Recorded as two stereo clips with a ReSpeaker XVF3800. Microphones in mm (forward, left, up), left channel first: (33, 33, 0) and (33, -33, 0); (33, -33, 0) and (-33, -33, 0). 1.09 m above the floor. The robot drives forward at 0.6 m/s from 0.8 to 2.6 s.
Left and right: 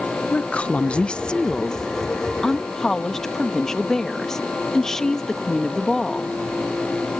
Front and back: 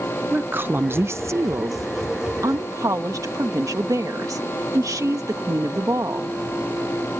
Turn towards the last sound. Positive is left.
turn(degrees=170)